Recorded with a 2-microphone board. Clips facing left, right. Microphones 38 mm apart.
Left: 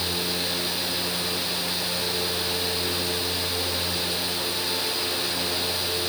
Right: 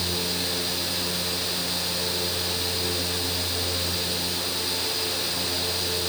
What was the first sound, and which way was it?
Only background noise.